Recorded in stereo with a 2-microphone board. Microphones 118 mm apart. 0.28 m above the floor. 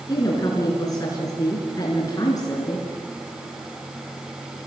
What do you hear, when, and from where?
0.1 s a woman speaking: 30° left (ahead or behind), 3.5 m